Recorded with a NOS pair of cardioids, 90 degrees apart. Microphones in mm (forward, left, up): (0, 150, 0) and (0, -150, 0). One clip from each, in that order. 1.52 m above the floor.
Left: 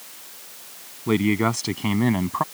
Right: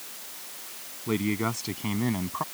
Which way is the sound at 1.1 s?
55° left.